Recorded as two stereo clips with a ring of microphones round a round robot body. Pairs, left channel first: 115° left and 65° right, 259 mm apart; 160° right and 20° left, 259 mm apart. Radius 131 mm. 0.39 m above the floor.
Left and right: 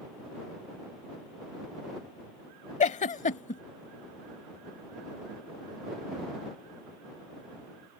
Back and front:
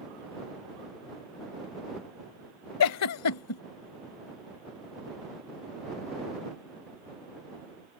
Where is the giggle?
175° left.